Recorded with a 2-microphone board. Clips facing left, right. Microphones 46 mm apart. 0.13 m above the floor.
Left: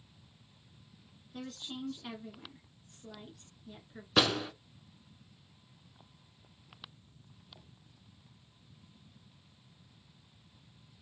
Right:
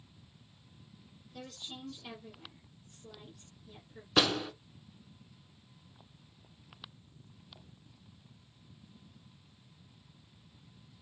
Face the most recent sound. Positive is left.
turn(degrees=5)  # may be behind; listen again after turning